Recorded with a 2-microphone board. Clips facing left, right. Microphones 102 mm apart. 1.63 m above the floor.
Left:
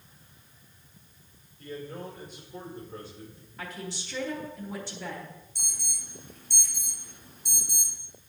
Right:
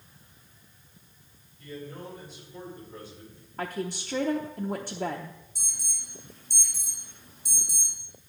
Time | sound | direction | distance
1.6 | a man speaking | 55° left (ahead or behind) | 5 m
3.6 | a woman speaking | 50° right (ahead or behind) | 0.8 m
5.5 | an alarm | 60° left (ahead or behind) | 2.5 m